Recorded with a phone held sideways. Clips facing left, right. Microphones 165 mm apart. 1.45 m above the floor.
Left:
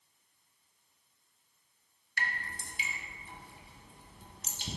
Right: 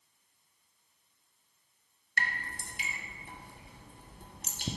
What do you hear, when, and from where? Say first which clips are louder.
2.2 s dripping: right 2 dB; 50° right (ahead or behind), 0.6 m